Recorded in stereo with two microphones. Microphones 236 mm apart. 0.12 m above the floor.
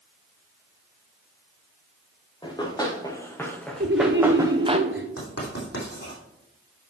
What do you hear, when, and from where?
2.4 s running footsteps: 20° left (ahead or behind), 3 m; by 4.8 s 25° right (ahead or behind), 1.4 m
3.8 s laughter: 55° right (ahead or behind), 1.8 m
5.2 s writing: 75° left (ahead or behind), 4 m